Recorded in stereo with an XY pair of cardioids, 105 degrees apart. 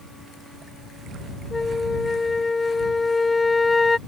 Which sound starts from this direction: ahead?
A flute, at 1.5 s.